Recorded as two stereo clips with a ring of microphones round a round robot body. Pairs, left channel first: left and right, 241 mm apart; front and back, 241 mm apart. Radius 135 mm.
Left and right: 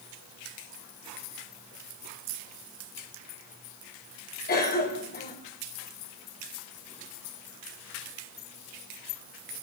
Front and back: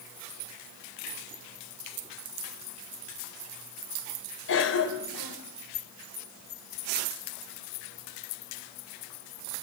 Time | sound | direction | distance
4.5 | a cough | 40° left | 3.5 m